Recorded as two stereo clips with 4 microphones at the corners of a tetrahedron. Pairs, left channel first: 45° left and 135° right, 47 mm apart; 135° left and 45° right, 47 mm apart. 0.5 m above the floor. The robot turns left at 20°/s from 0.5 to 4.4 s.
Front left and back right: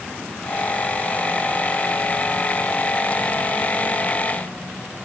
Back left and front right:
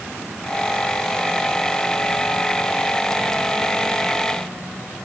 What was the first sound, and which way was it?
Only background noise.